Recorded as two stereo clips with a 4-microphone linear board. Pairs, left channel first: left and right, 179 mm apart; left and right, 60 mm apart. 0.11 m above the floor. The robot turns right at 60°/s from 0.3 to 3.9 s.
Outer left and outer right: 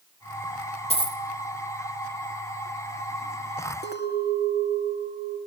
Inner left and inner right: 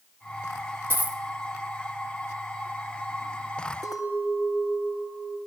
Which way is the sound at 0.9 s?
35° right (ahead or behind).